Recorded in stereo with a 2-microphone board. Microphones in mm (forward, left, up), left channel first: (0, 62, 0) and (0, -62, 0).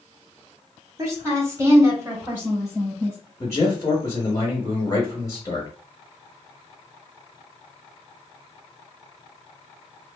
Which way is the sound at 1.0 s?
25° right (ahead or behind).